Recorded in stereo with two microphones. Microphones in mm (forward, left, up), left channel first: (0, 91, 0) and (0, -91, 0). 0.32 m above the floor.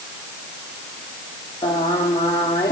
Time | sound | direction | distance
1.6 | singing | 20° left (ahead or behind) | 3 m